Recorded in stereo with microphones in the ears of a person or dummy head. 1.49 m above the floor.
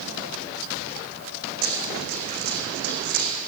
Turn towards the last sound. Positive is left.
turn(degrees=-50)  # may be behind; listen again after turning